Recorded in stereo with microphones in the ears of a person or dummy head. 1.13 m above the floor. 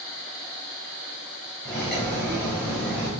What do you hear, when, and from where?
1.6 s cutlery clinking: 5° left (ahead or behind), 5 m